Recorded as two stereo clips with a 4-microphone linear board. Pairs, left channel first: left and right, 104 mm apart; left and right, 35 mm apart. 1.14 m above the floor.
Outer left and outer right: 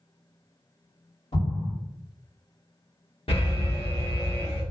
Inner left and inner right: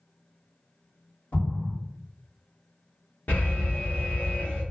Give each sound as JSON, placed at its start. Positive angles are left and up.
{"t": 1.3, "sound": "an explosion", "side_deg": 75, "distance_m": 1.9}
{"t": 3.3, "sound": "an alarm", "side_deg": 65, "distance_m": 1.1}